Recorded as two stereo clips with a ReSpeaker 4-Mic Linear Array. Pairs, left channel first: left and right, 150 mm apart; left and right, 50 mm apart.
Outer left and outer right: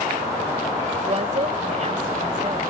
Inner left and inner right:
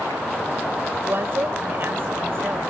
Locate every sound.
1.0 s a woman speaking: 50° right (ahead or behind)